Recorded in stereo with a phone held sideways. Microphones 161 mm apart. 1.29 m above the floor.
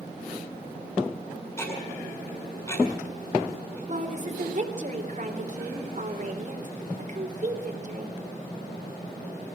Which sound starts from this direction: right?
A woman speaking, at 3.9 s.